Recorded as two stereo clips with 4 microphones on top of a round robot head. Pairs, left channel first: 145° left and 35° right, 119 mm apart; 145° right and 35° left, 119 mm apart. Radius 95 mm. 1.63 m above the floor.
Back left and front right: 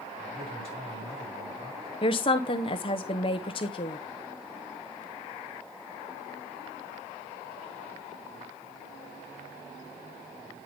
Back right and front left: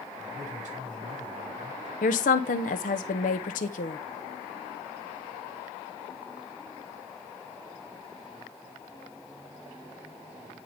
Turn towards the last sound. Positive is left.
turn(degrees=-165)